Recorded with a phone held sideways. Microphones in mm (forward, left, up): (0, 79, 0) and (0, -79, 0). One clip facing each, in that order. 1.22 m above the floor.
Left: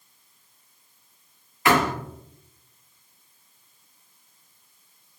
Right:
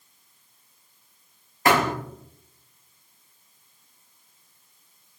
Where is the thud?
45° right (ahead or behind), 2 m.